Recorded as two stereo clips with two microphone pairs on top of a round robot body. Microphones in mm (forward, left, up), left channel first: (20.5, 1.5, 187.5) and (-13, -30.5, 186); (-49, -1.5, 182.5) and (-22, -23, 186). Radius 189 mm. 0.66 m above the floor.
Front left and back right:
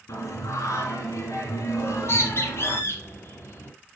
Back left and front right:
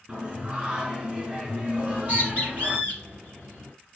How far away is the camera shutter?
No camera shutter in this recording.